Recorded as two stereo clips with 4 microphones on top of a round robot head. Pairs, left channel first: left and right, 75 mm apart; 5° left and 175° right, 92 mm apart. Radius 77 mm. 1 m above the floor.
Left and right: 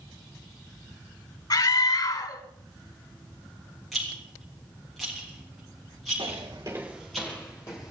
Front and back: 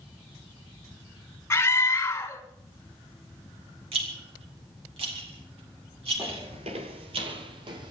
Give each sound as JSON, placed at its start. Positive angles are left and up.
{"t": 1.5, "sound": "a scream", "azimuth_deg": 65, "distance_m": 4.5}
{"t": 3.9, "sound": "a rattle", "azimuth_deg": 180, "distance_m": 3.5}
{"t": 6.2, "sound": "footsteps", "azimuth_deg": -110, "distance_m": 1.3}